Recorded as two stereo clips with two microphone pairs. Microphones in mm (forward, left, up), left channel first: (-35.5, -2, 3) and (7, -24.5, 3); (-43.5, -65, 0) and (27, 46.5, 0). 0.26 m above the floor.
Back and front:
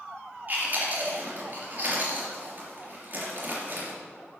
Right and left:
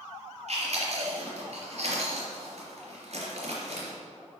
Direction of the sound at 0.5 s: 25° left.